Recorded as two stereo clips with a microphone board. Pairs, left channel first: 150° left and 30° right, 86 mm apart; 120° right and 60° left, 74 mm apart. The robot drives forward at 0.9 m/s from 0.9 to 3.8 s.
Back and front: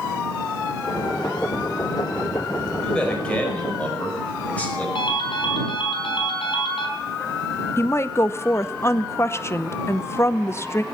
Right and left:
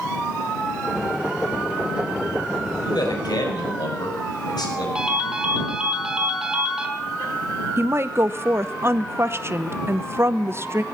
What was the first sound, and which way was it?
A man speaking, 130° right.